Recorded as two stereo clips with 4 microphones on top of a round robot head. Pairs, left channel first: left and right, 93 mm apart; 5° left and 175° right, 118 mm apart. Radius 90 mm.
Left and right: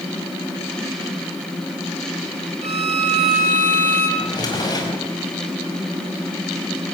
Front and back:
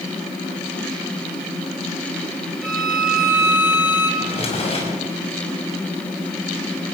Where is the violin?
90° right, 5.5 m.